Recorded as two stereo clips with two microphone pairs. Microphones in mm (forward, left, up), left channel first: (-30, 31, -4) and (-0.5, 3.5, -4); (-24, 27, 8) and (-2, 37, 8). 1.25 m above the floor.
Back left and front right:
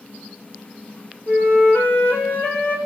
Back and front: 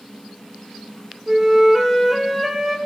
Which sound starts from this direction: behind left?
A flute, at 1.3 s.